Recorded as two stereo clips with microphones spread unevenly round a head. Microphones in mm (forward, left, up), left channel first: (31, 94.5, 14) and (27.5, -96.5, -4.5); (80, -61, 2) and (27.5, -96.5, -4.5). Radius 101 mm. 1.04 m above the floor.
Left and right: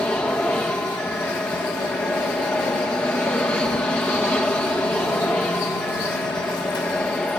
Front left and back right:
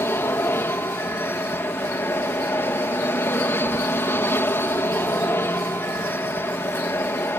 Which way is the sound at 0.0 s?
5° left.